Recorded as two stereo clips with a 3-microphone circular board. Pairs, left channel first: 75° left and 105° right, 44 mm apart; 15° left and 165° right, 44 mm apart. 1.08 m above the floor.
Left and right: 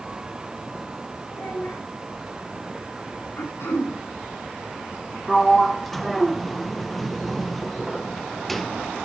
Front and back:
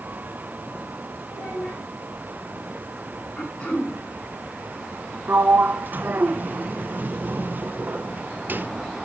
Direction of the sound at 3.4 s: 80° left.